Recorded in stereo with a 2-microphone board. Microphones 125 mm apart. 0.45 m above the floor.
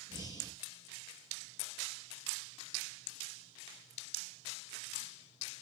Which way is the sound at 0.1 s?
35° left (ahead or behind).